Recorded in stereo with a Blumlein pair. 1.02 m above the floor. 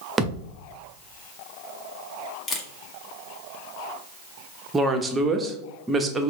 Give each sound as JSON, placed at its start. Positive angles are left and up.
{"t": 0.2, "sound": "a thud", "azimuth_deg": -15, "distance_m": 1.1}
{"t": 2.5, "sound": "a camera shutter", "azimuth_deg": 15, "distance_m": 1.2}
{"t": 4.7, "sound": "a woman speaking", "azimuth_deg": -15, "distance_m": 0.9}